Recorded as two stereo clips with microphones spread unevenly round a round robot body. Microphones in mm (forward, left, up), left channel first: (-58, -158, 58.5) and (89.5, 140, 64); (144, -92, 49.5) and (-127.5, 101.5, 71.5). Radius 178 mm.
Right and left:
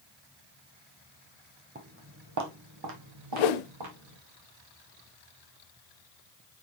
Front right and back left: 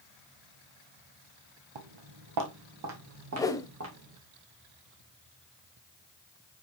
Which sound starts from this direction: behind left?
Footsteps, at 1.8 s.